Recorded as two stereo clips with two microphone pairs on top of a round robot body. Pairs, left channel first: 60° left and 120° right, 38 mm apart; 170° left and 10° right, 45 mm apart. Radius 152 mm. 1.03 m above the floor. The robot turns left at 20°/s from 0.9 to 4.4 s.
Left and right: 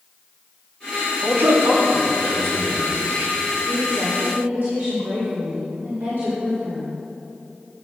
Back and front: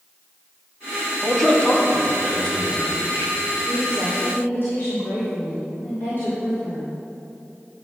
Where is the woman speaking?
135° right, 3.5 m; by 6.9 s 150° right, 3.5 m.